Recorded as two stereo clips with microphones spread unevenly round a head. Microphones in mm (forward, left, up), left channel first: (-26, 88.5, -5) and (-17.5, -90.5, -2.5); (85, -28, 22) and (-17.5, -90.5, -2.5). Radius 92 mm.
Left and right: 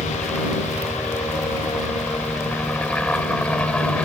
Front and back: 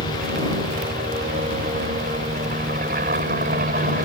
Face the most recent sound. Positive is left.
turn(degrees=175)